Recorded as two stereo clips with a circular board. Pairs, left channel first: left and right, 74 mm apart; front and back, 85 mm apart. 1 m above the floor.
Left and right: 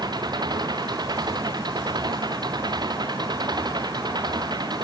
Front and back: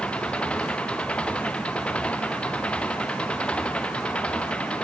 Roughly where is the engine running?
Right.